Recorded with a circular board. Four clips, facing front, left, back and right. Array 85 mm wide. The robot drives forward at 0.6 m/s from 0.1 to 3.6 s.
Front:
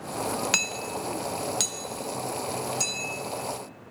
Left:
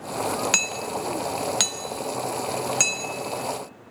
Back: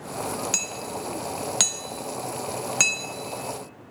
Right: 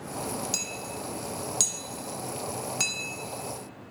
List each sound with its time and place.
0.5 s hammering: 65° left, 0.6 m; by 3.1 s 155° left, 1.4 m